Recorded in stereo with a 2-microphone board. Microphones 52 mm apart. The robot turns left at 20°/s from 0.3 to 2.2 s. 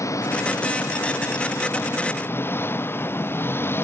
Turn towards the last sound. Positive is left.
turn(degrees=50)